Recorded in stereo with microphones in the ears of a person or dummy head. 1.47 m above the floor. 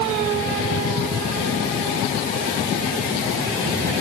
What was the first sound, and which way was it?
Only background noise.